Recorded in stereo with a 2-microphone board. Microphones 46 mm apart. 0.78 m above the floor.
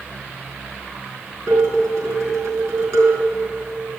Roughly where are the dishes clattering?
Right.